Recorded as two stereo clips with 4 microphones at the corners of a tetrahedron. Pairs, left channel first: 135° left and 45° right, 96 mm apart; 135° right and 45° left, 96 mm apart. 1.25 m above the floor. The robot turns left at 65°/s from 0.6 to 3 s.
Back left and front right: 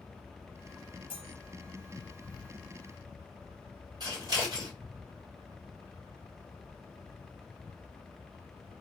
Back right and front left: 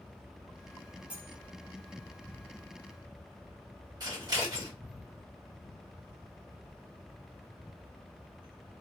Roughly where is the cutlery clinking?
Behind left.